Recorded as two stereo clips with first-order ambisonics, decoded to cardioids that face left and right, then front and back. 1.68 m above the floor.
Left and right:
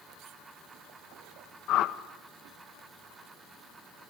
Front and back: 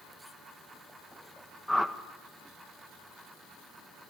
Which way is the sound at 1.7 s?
85° left.